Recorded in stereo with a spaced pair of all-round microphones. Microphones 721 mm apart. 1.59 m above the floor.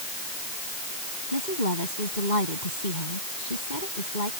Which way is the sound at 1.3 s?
75° left (ahead or behind).